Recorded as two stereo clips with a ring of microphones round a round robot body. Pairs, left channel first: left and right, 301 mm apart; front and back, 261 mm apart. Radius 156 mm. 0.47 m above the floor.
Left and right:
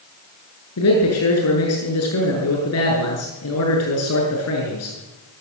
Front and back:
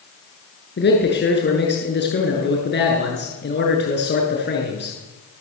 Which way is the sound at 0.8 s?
50° left.